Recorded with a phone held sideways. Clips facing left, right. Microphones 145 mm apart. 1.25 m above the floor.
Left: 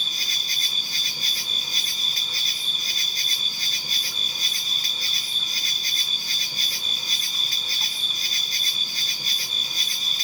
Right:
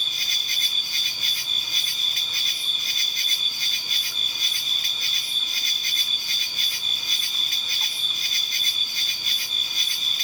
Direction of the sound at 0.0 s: 35° left (ahead or behind).